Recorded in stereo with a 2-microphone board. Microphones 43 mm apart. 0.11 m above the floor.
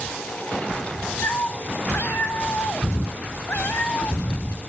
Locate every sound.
1.2 s a cat meowing: 55° left (ahead or behind), 0.7 m